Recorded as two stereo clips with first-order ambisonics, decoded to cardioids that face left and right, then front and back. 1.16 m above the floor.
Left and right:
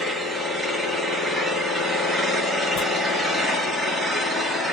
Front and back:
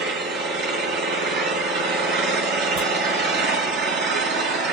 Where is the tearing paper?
135° left, 4 m.